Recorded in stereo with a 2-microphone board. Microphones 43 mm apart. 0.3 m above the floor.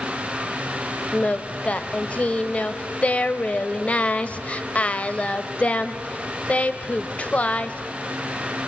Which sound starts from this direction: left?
Singing, at 1.1 s.